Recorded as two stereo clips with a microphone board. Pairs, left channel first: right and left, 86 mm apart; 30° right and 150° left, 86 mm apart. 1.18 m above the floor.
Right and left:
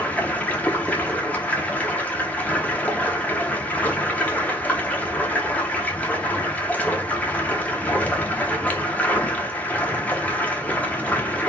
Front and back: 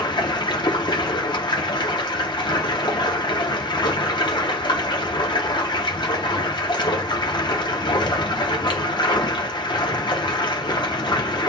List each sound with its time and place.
0.0 s running water: 20° right, 0.8 m